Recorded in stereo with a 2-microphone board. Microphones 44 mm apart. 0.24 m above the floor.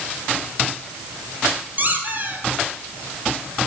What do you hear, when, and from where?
1.8 s a squeak: 40° right (ahead or behind), 1.3 m